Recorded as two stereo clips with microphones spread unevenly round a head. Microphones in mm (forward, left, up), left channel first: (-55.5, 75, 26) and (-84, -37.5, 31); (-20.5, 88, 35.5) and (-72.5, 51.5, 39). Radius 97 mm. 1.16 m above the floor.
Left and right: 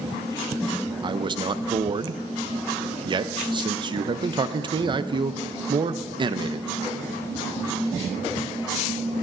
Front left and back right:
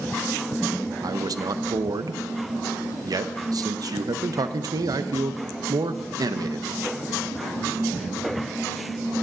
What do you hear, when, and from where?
1.0 s a man speaking: 150° right, 0.6 m